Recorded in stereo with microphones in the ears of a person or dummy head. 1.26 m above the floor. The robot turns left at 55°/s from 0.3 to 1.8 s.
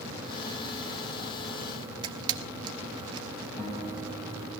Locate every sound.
2.0 s a camera shutter: 25° right (ahead or behind), 0.8 m
3.6 s a guitar: 20° left (ahead or behind), 5.5 m